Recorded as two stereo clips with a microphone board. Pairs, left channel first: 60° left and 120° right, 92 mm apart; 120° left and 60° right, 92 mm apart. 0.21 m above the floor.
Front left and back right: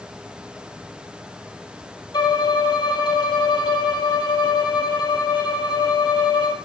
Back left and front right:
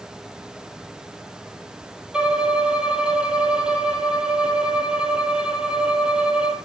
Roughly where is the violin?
Ahead.